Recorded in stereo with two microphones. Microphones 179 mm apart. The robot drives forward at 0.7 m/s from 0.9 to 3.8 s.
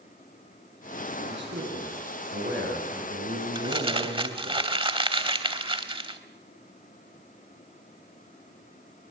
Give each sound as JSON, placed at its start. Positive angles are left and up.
{"t": 1.2, "sound": "a man speaking", "side_deg": -85, "distance_m": 9.0}
{"t": 3.5, "sound": "crumpling", "side_deg": -30, "distance_m": 3.0}